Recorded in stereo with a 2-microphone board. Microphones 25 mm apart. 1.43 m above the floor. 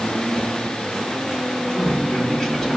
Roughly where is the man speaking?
Left.